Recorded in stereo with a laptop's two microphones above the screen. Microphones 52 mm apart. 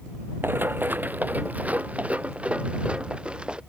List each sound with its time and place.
0.4 s running footsteps: 40° right (ahead or behind); by 3.6 s 15° right (ahead or behind)